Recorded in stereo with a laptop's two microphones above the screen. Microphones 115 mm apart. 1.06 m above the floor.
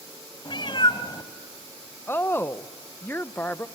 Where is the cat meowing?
45° left (ahead or behind), 1.8 m.